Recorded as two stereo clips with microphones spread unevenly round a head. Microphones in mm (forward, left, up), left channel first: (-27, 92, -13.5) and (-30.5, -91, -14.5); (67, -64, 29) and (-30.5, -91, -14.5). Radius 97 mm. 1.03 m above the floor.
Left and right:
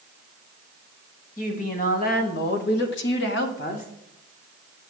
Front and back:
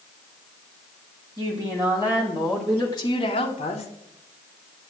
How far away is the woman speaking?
About 2 m.